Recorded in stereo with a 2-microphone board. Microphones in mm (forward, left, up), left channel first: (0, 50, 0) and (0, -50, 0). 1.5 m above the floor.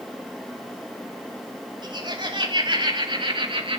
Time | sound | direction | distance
1.8 | laughter | 50° right (ahead or behind) | 5.5 m